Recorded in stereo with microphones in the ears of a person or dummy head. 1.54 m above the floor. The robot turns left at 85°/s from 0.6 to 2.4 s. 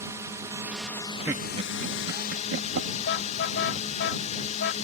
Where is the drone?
160° right; by 4.8 s 45° left.